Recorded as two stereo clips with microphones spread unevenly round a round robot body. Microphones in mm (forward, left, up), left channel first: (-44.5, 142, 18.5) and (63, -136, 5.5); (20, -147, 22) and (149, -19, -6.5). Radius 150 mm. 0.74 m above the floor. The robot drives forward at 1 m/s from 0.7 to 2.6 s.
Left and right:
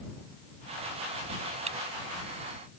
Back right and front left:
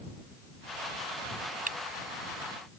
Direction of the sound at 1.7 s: Straight ahead.